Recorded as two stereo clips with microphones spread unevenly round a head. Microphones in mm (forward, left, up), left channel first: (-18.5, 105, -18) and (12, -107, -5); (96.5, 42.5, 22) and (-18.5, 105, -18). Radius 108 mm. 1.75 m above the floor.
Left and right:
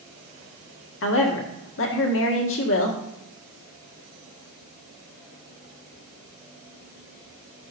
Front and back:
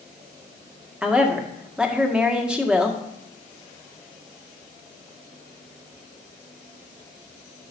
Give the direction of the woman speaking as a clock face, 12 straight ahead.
10 o'clock.